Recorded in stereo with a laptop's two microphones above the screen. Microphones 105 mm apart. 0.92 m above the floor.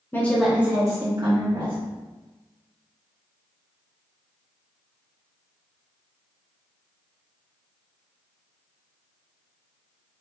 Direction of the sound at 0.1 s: 20° left (ahead or behind).